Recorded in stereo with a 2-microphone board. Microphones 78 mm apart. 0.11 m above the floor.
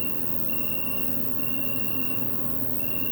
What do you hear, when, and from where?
0.0 s an insect: 15° left (ahead or behind), 1.8 m